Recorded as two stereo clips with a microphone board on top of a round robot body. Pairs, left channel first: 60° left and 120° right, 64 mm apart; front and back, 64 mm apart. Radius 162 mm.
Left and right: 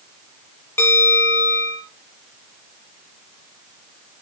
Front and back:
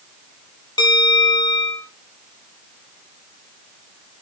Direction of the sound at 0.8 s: 5° left.